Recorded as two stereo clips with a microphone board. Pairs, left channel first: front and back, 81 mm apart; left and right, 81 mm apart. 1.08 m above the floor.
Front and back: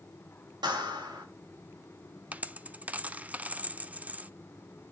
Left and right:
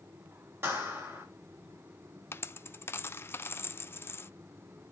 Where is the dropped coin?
125° left, 0.5 m.